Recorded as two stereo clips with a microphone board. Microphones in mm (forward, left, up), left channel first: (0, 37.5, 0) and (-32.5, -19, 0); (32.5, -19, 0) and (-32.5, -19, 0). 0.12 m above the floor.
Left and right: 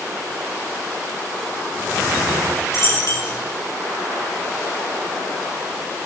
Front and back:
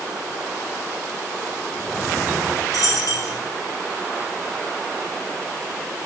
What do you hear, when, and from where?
2.7 s a dropped coin: 20° left, 9 m